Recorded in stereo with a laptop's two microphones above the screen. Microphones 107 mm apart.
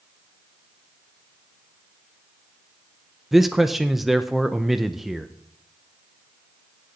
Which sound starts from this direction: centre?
A man speaking, at 3.3 s.